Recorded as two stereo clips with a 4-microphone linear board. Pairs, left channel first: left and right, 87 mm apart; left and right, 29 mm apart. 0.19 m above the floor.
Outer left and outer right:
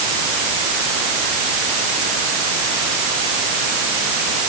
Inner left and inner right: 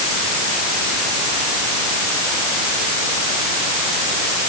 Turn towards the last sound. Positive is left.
No sound to turn to.